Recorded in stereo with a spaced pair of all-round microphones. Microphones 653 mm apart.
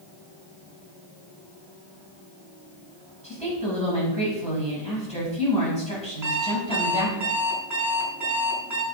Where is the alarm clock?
25° right (ahead or behind), 5.5 m.